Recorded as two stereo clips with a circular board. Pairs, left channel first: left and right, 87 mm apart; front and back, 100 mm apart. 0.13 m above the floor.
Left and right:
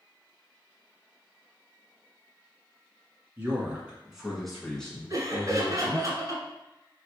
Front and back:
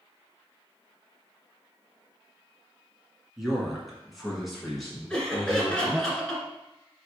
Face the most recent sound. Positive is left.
turn(degrees=-80)